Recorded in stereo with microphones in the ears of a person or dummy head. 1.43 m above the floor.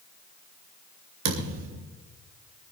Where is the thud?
65° right (ahead or behind), 3.5 m.